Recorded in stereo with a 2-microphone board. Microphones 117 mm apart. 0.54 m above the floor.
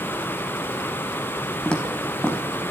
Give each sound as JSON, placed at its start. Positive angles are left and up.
{"t": 1.6, "sound": "footsteps", "side_deg": 10, "distance_m": 1.7}